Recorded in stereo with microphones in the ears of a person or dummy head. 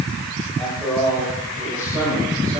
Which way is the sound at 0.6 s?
Centre (ahead or behind).